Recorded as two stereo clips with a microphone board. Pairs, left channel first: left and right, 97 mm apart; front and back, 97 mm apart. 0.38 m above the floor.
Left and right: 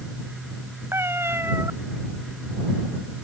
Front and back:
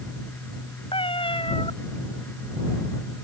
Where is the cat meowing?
25° right.